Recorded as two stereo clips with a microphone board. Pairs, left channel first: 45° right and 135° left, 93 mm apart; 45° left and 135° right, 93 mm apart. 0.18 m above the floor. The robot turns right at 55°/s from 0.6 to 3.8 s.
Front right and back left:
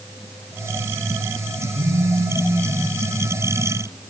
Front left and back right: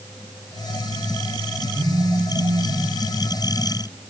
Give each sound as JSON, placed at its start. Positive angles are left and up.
{"t": 1.7, "sound": "a phone buzzing", "azimuth_deg": 165, "distance_m": 7.0}